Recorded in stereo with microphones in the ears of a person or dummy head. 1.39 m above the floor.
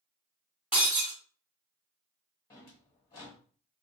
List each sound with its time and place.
0.7 s breaking glass: 5° right (ahead or behind), 1.3 m
2.5 s a drawer: 20° left (ahead or behind), 1.4 m